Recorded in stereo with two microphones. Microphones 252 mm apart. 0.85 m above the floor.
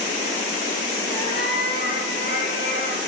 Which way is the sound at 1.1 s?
40° left (ahead or behind).